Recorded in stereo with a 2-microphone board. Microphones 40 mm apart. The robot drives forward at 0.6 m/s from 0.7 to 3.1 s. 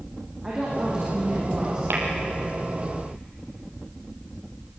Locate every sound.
0.4 s a woman speaking: 20° right (ahead or behind), 7.5 m
1.9 s tapping: 70° right (ahead or behind), 4.5 m